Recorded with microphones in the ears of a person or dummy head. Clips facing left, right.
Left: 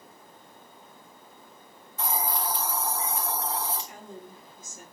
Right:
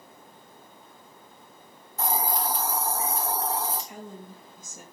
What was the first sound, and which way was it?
A hiss, 40° right (ahead or behind).